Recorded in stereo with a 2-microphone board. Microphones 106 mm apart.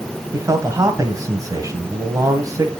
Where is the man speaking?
35° right (ahead or behind), 1.6 m.